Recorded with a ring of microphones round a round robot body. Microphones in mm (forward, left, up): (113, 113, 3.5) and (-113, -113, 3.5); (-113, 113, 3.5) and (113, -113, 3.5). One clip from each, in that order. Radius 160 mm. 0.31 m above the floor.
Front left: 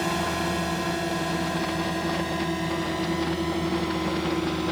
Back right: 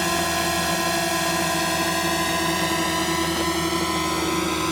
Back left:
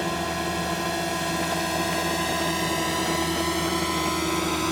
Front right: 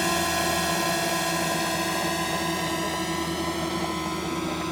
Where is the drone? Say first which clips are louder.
Back right 4 dB, front right 3 dB; 95° right; by 4.7 s 160° right.